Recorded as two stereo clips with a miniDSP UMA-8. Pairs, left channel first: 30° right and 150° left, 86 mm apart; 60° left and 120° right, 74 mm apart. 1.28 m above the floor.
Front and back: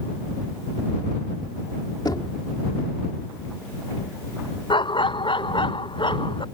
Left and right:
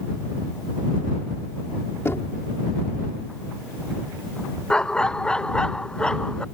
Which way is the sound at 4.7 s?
20° right.